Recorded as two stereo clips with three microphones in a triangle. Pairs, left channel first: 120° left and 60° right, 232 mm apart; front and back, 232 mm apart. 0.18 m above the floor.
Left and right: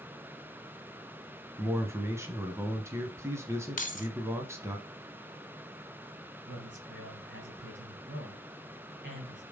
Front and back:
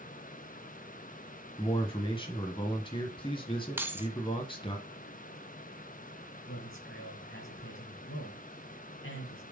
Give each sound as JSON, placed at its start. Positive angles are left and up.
{"t": 1.6, "sound": "a man speaking", "azimuth_deg": 0, "distance_m": 1.0}
{"t": 3.8, "sound": "keys jangling", "azimuth_deg": 105, "distance_m": 1.1}
{"t": 6.5, "sound": "a man speaking", "azimuth_deg": -25, "distance_m": 4.0}